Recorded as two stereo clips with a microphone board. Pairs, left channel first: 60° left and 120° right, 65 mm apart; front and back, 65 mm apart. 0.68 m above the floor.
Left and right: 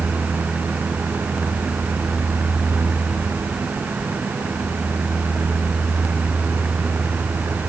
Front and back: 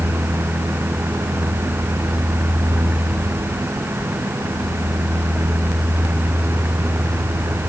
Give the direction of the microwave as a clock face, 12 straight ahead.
I don't hear a microwave.